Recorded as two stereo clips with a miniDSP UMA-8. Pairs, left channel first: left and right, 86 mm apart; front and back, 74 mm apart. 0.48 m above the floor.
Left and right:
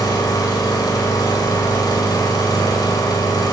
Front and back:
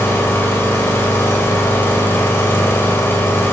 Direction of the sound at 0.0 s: 55° left.